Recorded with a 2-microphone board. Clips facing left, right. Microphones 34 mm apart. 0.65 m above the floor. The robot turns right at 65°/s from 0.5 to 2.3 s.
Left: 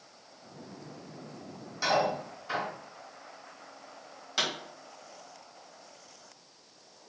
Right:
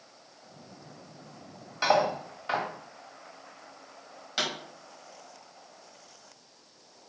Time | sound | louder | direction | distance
1.8 | cutlery clinking | right 3 dB | 25° right (ahead or behind) | 1.6 m
4.4 | a pop | even | 5° right (ahead or behind) | 1.9 m